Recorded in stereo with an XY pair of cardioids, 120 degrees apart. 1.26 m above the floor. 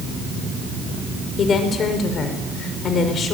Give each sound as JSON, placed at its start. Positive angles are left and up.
{"t": 1.4, "sound": "a woman speaking", "azimuth_deg": 45, "distance_m": 5.5}